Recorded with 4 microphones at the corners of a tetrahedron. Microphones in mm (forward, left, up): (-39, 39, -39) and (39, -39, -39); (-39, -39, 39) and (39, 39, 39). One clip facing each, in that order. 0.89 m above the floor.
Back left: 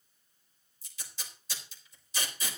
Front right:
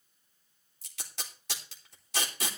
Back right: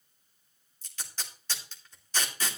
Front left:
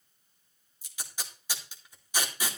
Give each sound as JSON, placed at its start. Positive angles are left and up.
{"t": 0.8, "sound": "tape being pulled", "azimuth_deg": -35, "distance_m": 2.5}